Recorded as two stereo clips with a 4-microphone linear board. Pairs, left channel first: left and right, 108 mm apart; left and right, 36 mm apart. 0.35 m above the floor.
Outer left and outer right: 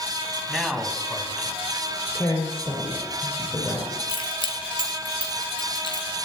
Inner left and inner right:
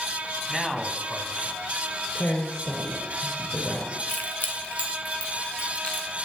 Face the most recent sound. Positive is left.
turn(degrees=50)  # may be behind; listen again after turning